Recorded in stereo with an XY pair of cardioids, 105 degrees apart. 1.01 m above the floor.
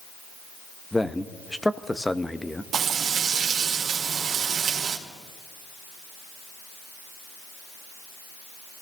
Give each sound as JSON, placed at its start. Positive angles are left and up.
{"t": 0.9, "sound": "a man speaking", "azimuth_deg": 10, "distance_m": 0.9}
{"t": 2.7, "sound": "frying", "azimuth_deg": -55, "distance_m": 2.0}